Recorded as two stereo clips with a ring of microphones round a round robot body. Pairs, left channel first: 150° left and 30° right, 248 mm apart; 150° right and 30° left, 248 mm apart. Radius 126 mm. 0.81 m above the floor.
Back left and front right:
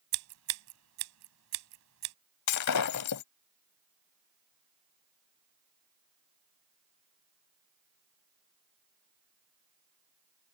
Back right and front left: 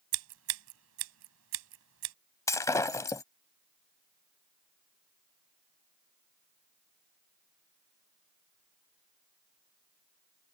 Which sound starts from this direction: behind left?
Breaking glass, at 2.5 s.